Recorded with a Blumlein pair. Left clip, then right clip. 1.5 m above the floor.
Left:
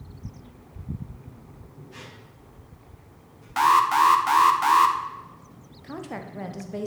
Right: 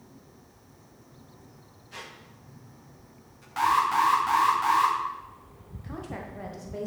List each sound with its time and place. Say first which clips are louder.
1.9 s a squeak: right 3 dB; 20° right, 1.5 m
3.6 s an alarm: left 5 dB; 25° left, 0.9 m
5.8 s a woman speaking: left 3 dB; 15° left, 0.9 m